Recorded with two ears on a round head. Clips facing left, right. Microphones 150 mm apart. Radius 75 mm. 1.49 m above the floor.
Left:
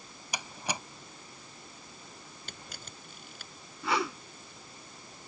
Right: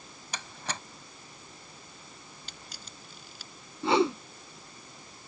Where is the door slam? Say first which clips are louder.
Left 2 dB; 10° left (ahead or behind).